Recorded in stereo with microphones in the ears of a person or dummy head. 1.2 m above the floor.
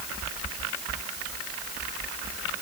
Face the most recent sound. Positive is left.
No sound to turn to.